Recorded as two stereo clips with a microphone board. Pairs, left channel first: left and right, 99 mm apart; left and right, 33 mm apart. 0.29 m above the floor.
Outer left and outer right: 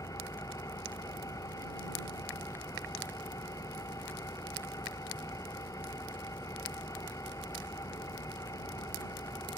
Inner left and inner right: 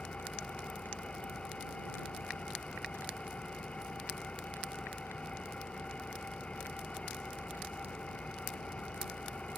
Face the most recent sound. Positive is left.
turn(degrees=35)  # may be behind; listen again after turning